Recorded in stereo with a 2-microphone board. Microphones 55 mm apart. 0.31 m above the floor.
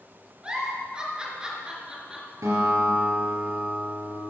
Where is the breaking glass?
I don't hear breaking glass.